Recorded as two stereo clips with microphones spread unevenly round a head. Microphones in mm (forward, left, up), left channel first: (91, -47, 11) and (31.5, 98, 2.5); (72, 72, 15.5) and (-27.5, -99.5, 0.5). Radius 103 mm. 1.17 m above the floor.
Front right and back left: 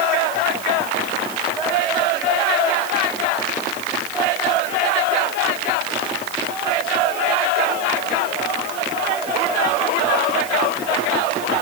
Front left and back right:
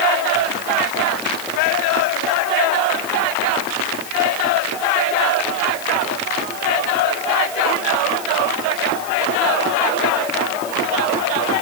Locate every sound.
Only background noise.